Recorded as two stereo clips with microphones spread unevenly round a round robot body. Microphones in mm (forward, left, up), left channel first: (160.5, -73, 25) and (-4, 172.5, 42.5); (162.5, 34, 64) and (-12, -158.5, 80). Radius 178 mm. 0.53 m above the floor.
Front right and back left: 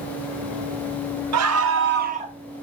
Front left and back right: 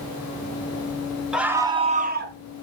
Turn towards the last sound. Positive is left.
turn(degrees=-165)